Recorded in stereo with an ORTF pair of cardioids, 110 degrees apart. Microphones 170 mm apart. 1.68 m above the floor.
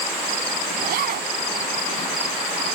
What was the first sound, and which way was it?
A zipper, 65° right.